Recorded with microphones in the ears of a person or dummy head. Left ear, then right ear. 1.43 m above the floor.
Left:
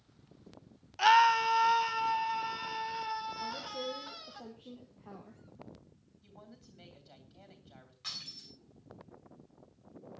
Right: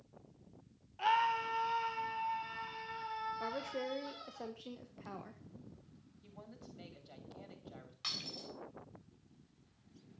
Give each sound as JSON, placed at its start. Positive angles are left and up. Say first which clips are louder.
{"t": 1.0, "sound": "a scream", "louder": "left 9 dB", "side_deg": 50, "distance_m": 0.7}
{"t": 3.4, "sound": "a woman speaking", "louder": "left 2 dB", "side_deg": -70, "distance_m": 1.5}
{"t": 6.2, "sound": "a woman speaking", "louder": "right 1 dB", "side_deg": -5, "distance_m": 2.5}
{"t": 8.0, "sound": "breaking glass", "louder": "right 1 dB", "side_deg": -35, "distance_m": 8.0}